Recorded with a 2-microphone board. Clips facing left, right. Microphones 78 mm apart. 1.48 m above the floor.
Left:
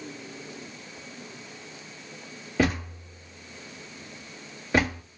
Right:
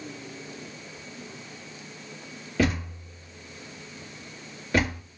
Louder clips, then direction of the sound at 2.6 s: Even; 15° left (ahead or behind).